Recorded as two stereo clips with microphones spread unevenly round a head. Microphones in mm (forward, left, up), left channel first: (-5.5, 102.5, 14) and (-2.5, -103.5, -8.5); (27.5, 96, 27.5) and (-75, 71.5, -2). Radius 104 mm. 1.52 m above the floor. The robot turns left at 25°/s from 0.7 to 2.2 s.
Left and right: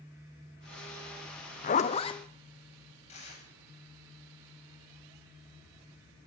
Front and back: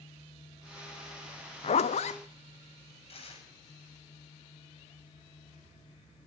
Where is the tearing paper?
35° left, 9 m.